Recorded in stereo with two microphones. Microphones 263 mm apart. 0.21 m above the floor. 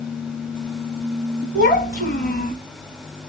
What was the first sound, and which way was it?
A child speaking, 35° left (ahead or behind).